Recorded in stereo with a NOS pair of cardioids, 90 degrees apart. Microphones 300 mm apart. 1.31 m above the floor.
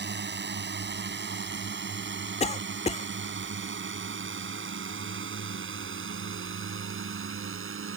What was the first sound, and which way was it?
A drone, 35° right.